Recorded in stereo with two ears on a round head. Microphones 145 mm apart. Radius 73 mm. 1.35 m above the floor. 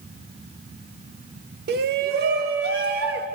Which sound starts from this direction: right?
A shout, at 1.7 s.